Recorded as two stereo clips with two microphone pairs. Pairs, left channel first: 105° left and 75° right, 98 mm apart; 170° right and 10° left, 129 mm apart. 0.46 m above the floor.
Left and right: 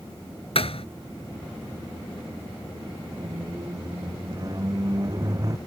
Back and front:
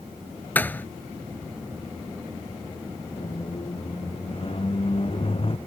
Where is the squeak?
125° right.